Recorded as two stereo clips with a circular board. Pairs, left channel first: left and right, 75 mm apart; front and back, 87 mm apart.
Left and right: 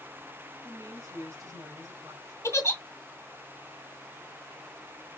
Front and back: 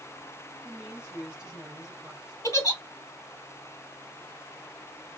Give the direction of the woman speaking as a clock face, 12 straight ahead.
3 o'clock.